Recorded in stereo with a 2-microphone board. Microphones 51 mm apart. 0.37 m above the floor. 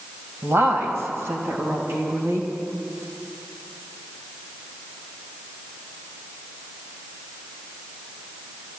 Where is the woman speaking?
55° right (ahead or behind), 2 m; by 2.5 s 65° right (ahead or behind), 3 m.